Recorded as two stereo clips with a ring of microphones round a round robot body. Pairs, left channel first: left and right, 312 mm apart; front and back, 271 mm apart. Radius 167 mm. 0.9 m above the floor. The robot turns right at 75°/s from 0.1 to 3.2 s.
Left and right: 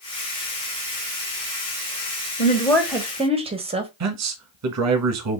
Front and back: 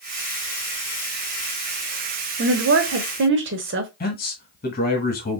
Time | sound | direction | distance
2.4 | a woman speaking | 145° left | 1.2 m
4.0 | a man speaking | 55° right | 1.3 m